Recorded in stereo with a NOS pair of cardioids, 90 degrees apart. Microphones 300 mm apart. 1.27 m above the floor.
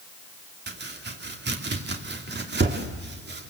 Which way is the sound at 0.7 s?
35° right.